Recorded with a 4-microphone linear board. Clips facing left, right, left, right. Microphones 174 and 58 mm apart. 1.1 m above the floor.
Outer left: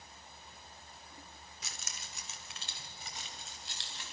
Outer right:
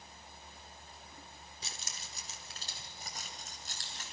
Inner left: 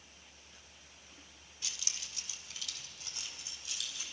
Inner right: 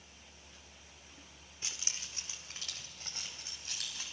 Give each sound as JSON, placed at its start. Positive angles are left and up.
{"t": 1.6, "sound": "keys jangling", "side_deg": -30, "distance_m": 1.8}